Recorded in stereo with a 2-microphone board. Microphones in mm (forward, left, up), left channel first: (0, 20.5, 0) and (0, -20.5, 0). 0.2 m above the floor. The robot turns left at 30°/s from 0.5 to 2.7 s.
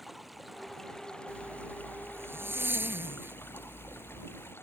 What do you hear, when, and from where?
0.0 s running water: straight behind; by 4.6 s 115° left
1.3 s a zipper: 75° right; by 4.5 s 120° right